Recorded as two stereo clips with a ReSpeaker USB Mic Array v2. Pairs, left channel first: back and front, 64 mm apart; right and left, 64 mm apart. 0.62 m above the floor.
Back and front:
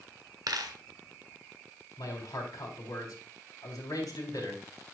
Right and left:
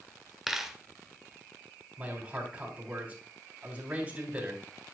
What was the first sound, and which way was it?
A dropped coin, 5° left.